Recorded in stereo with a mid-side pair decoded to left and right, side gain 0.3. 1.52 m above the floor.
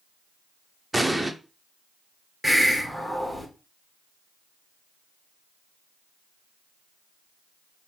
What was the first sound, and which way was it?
An explosion, 10° right.